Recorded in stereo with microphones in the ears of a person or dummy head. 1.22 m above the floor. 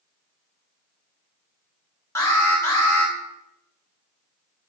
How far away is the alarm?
About 2.0 m.